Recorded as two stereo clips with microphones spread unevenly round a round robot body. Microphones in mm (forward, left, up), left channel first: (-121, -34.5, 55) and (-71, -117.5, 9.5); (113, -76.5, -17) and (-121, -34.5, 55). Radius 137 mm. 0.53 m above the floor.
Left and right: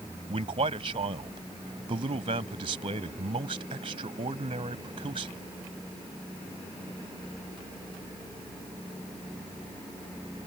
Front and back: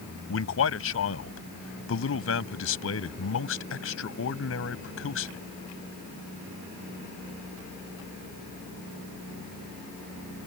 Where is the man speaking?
35° right.